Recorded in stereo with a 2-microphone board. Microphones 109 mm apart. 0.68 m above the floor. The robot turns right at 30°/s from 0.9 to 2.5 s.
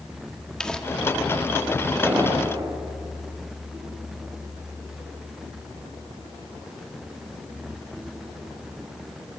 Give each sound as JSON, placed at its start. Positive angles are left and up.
{"t": 0.6, "sound": "crumpling", "side_deg": 5, "distance_m": 1.4}
{"t": 2.0, "sound": "an explosion", "side_deg": -15, "distance_m": 4.0}